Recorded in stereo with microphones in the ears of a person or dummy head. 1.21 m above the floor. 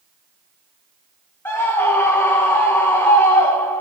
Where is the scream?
20° left (ahead or behind), 0.6 m.